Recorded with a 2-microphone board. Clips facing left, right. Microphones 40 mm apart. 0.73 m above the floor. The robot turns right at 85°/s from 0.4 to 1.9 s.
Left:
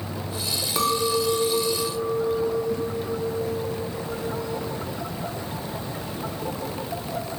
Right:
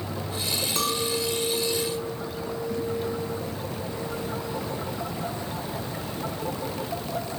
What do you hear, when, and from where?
0.8 s a clink: 25° left, 0.6 m; by 4.8 s 120° left, 0.6 m